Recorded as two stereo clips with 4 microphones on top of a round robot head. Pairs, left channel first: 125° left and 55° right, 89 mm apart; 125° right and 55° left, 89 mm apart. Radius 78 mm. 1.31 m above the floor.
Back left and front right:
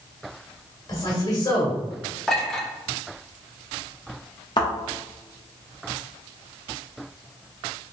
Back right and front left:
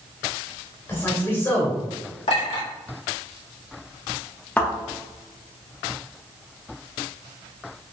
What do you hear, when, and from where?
0.9 s a man speaking: 170° left, 1.9 m
2.3 s a clink: 150° right, 1.6 m
4.6 s a thud: 160° left, 0.9 m